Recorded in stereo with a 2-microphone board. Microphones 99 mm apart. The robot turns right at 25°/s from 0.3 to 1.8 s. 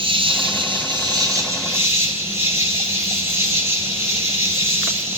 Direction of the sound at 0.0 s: 65° right.